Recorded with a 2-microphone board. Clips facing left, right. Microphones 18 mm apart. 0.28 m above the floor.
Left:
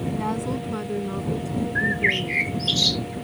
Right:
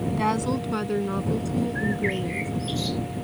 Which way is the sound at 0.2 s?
50° right (ahead or behind).